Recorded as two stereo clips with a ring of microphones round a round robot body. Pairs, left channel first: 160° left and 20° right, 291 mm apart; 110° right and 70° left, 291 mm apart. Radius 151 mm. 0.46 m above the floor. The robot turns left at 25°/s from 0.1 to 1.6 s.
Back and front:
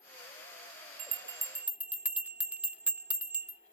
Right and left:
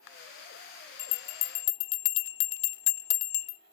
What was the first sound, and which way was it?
A bell, 95° right.